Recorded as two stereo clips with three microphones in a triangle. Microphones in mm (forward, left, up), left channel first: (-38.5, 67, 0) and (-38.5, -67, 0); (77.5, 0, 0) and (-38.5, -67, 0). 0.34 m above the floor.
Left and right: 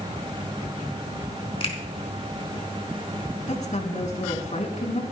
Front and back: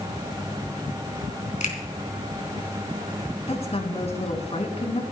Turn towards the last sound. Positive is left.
turn(degrees=65)